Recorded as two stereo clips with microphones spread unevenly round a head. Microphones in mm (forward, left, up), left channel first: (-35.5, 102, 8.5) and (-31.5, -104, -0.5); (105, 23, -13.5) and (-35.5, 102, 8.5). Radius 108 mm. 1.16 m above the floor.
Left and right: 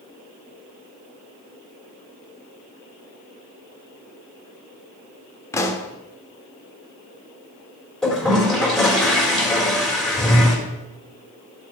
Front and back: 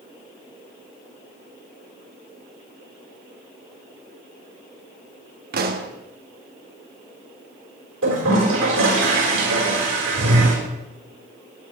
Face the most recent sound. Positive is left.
turn(degrees=180)